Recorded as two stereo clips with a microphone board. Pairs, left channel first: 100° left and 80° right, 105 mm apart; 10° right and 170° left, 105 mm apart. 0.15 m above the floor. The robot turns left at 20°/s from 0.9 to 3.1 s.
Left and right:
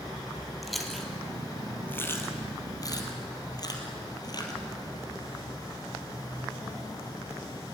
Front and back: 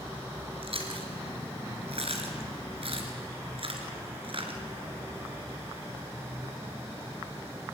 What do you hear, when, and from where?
0.6 s chewing: 170° right, 3 m; by 4.6 s 145° left, 3 m